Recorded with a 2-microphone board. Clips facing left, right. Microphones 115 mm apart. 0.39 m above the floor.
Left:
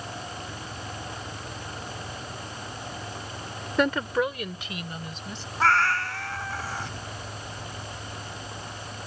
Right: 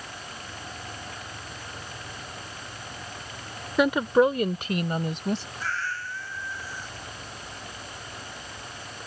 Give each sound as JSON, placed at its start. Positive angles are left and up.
{"t": 3.8, "sound": "a woman speaking", "side_deg": -5}
{"t": 5.6, "sound": "a cat meowing", "side_deg": 80}